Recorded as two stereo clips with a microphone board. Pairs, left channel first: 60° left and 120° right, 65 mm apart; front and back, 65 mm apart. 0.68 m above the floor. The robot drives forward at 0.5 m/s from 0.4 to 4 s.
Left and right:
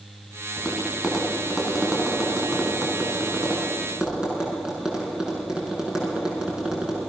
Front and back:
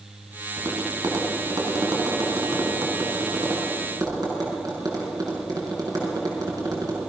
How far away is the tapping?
About 4.5 m.